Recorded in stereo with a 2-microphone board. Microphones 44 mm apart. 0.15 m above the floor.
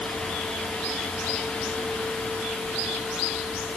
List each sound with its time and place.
Only background noise.